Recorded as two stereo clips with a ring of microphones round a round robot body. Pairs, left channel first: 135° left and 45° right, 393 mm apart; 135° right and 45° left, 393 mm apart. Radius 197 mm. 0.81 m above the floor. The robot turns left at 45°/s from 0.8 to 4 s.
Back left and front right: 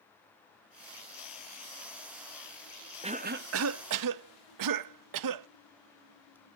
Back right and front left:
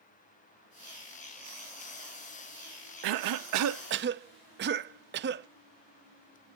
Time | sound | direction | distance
3.0 | a cough | 30° left | 0.5 m